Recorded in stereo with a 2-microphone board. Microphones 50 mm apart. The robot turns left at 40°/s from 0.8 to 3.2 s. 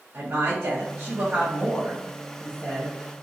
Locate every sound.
0.1 s a woman speaking: 120° right, 1.1 m; by 2.9 s 155° left, 1.1 m